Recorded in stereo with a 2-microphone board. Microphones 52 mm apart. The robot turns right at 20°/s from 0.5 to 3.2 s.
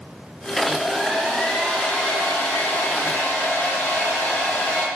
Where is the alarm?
I don't hear an alarm.